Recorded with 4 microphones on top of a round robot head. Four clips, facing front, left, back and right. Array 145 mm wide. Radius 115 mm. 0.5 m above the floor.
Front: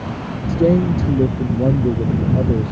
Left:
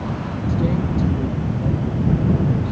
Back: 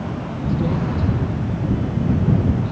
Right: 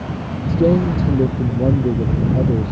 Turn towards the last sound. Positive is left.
turn(degrees=-45)